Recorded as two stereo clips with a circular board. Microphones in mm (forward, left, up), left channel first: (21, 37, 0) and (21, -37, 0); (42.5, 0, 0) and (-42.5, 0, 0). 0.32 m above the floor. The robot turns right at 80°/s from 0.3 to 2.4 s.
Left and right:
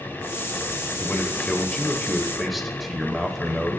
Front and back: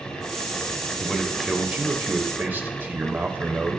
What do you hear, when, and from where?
1.0 s a man speaking: 70° left, 1.0 m; by 3.8 s straight behind, 1.0 m